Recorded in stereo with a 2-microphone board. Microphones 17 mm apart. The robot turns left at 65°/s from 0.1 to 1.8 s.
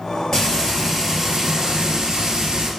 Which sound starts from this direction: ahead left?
Frying, at 0.3 s.